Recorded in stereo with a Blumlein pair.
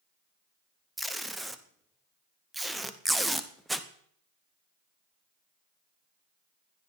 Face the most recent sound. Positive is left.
turn(degrees=-5)